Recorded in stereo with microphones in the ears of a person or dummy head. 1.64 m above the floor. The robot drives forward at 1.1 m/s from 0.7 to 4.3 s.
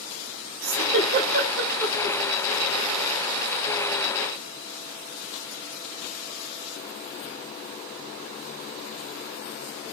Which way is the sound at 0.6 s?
75° right (ahead or behind).